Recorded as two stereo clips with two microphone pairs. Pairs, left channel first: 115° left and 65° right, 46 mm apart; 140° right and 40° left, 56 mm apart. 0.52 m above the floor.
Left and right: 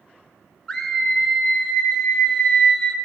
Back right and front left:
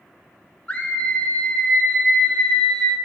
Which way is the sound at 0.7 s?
Straight behind.